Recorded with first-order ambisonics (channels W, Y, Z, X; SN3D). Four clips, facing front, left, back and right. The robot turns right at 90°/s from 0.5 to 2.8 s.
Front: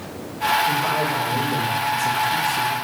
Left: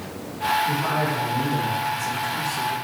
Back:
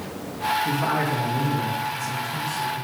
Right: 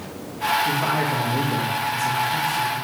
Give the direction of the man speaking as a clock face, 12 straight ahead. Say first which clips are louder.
Right 1 dB, front 3 dB; 5 o'clock.